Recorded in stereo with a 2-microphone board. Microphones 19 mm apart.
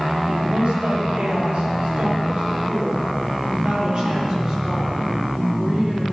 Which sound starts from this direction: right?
A woman speaking, at 0.4 s.